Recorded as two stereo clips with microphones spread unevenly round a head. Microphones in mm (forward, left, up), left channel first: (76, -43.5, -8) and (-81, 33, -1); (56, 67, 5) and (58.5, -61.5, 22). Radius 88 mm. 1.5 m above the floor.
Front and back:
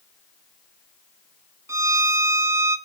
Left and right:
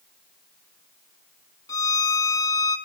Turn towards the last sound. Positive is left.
turn(degrees=130)